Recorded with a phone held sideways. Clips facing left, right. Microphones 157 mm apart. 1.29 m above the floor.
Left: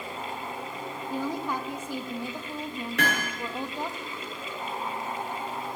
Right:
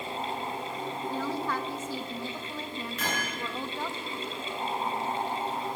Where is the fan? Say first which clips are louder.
Right 2 dB; 30° right (ahead or behind), 3.5 m.